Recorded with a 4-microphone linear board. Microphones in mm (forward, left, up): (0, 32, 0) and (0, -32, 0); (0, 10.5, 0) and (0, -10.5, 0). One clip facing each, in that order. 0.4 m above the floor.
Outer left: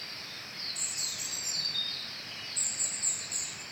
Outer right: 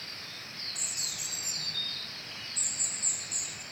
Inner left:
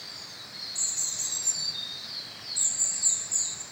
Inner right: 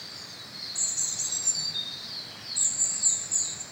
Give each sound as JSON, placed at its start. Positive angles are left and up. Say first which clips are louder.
{"t": 0.8, "sound": "a bird", "louder": "even, inner right 1 dB", "side_deg": -5, "distance_m": 5.5}